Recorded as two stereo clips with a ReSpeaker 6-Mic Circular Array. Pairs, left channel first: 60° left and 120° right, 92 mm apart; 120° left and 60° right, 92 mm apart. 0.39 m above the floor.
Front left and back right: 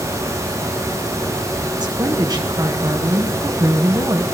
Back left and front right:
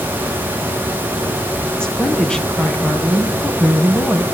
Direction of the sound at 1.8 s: 160° right.